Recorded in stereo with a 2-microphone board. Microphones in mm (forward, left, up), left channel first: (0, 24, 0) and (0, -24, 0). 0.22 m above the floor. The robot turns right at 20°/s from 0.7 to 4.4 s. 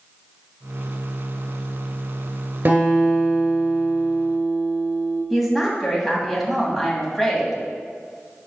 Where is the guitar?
115° right, 2 m; by 5.2 s 80° right, 2 m.